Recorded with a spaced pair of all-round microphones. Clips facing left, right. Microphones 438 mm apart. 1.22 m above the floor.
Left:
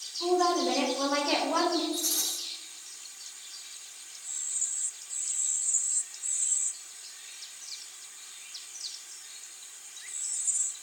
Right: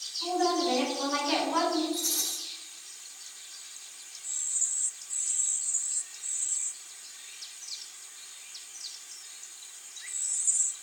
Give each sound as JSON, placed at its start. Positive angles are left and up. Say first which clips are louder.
{"t": 0.2, "sound": "a woman speaking", "louder": "left 2 dB", "side_deg": 80, "distance_m": 4.5}
{"t": 1.9, "sound": "a rattle", "louder": "right 1 dB", "side_deg": 80, "distance_m": 6.5}